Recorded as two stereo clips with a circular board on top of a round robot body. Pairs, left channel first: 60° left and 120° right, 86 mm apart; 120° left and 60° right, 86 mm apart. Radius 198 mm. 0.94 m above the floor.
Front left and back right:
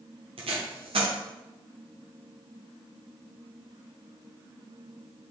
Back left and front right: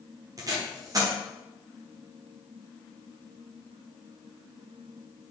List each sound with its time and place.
0.4 s tape being pulled: 110° right, 1.2 m